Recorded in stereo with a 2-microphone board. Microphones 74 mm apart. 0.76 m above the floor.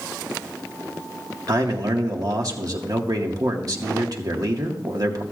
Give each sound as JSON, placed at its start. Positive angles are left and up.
{"t": 1.5, "sound": "a man speaking", "side_deg": -50, "distance_m": 1.7}